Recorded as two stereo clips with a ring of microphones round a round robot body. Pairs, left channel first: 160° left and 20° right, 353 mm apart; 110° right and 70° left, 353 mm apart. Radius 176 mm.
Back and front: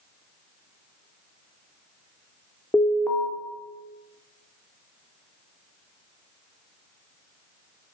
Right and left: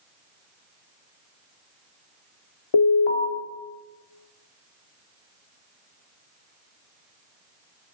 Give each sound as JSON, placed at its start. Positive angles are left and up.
{"t": 2.7, "sound": "an alarm", "azimuth_deg": -120, "distance_m": 2.5}